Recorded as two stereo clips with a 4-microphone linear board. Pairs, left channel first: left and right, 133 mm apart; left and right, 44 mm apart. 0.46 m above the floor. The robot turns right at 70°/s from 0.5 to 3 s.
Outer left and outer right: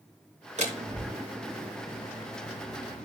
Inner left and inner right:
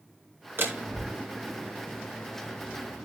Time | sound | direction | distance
0.6 | a door slam | 60° right (ahead or behind) | 2.5 m